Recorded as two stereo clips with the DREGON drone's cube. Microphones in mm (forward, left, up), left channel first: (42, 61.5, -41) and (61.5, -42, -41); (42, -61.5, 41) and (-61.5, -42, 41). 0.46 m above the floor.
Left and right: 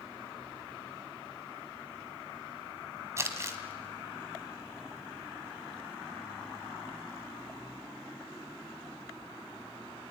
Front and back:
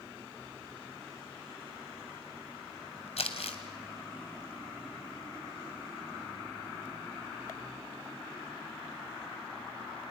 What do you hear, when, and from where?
3.2 s crumpling: 15° right, 2 m